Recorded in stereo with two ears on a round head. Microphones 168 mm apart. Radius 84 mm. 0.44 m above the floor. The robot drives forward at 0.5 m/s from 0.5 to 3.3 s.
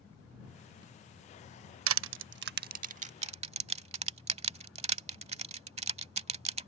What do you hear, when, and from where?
1.9 s crushing: 85° right; by 6.7 s 35° right (ahead or behind)